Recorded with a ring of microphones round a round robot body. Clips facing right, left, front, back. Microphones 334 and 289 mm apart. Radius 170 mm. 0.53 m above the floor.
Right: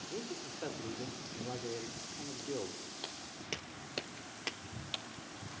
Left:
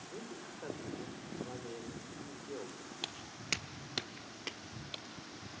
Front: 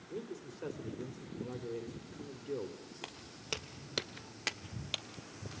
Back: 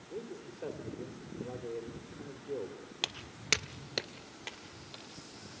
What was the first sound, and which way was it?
A man speaking, 70° right.